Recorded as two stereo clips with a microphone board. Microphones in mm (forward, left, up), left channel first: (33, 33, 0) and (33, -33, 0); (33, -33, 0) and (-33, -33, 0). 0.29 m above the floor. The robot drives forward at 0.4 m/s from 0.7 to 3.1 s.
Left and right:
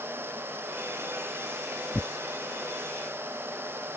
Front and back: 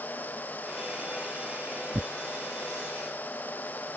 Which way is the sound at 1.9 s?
165° left.